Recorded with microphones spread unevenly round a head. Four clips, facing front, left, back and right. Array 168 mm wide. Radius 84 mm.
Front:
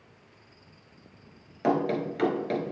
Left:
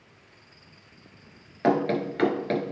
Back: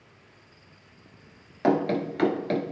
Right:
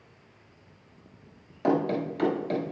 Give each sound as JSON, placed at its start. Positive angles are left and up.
{"t": 1.6, "sound": "running footsteps", "azimuth_deg": 100, "distance_m": 1.2}